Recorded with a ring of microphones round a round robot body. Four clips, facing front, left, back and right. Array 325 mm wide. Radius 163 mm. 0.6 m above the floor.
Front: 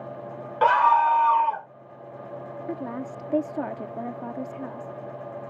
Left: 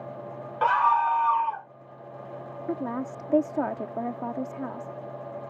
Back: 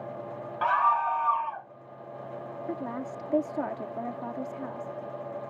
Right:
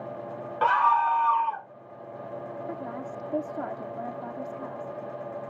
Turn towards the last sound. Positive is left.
turn(degrees=70)